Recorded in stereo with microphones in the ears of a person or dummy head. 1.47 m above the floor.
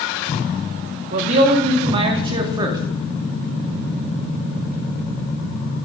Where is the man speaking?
45° right (ahead or behind), 2.5 m; by 2.8 s 25° right (ahead or behind), 2.5 m.